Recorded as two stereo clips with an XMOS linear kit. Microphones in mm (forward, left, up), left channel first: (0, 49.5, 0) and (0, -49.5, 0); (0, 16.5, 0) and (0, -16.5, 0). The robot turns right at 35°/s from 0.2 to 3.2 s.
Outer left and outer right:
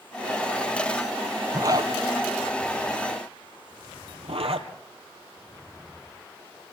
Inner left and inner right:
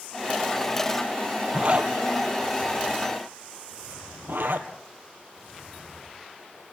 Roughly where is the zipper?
Right.